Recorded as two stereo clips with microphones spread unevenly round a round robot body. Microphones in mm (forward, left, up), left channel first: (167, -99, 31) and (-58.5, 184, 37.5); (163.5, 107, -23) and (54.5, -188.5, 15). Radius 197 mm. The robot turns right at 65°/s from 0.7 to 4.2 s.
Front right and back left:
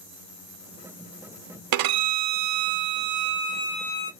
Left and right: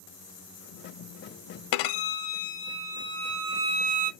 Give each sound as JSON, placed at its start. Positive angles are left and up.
{"t": 1.7, "sound": "a violin", "azimuth_deg": 85, "distance_m": 0.5}